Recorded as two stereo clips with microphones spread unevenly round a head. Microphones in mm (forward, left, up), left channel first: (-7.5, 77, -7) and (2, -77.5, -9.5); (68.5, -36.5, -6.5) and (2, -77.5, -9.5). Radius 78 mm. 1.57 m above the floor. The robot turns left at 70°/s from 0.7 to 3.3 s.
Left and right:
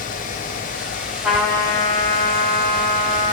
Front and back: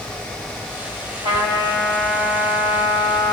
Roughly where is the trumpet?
Behind.